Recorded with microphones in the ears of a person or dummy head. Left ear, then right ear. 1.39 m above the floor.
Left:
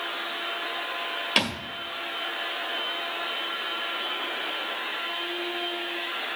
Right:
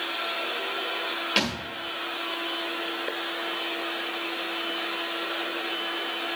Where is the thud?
20° left (ahead or behind), 1.5 m.